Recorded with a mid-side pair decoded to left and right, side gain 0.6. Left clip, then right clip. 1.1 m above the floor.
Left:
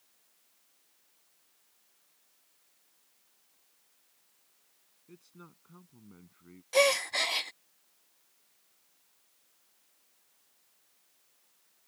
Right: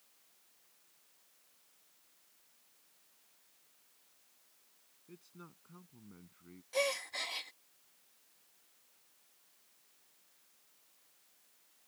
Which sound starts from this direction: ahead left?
A gasp, at 6.7 s.